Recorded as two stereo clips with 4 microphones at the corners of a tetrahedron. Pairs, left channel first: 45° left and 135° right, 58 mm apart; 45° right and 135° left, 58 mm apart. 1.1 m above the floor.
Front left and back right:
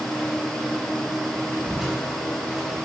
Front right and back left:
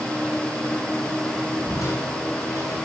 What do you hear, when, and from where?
1.7 s crushing: 50° right, 6 m